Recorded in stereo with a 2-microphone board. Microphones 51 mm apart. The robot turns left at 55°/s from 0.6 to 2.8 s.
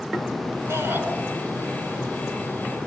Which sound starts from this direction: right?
A shout, at 0.7 s.